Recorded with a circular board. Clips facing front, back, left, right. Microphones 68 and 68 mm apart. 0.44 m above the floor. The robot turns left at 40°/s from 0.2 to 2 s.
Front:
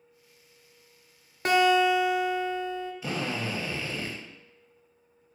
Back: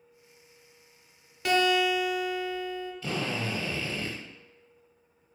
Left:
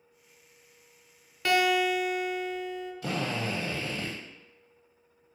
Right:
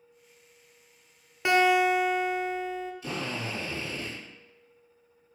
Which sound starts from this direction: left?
A drill, at 3.0 s.